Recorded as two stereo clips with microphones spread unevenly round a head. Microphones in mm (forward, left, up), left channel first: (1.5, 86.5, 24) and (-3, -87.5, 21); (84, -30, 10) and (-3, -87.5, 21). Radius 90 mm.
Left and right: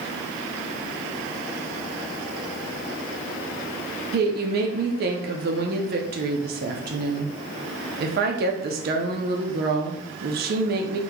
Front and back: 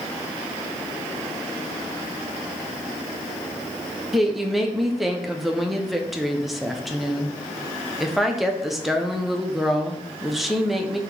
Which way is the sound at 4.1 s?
65° right.